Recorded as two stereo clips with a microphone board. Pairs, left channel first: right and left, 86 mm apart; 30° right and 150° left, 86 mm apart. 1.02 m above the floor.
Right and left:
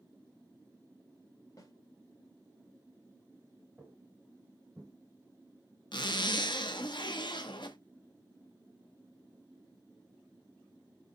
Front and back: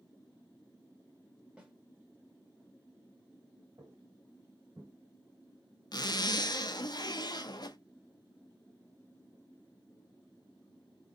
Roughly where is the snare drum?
Behind right.